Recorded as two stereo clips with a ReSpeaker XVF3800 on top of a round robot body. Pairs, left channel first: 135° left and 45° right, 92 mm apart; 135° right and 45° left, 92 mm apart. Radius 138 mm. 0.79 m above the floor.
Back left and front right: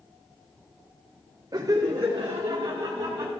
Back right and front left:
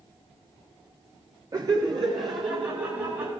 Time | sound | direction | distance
1.5 | laughter | straight ahead | 0.8 m